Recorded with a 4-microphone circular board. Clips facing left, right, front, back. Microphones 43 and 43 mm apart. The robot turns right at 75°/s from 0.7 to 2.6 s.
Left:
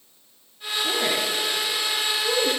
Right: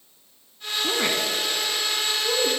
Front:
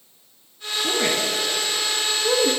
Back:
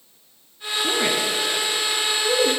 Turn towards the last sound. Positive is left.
turn(degrees=20)